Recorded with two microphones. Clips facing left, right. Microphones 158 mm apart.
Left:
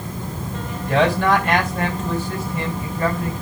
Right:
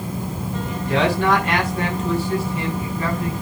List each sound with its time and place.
0.7 s a man speaking: 45° left (ahead or behind), 4.5 m